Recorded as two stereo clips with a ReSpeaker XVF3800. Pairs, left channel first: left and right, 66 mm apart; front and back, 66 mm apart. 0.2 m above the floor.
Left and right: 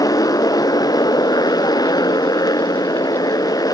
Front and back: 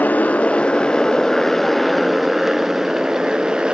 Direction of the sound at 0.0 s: 65° left.